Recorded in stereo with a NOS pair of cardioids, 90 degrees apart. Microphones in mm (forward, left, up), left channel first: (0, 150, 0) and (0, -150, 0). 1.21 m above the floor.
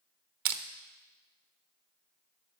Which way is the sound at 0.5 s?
70° right.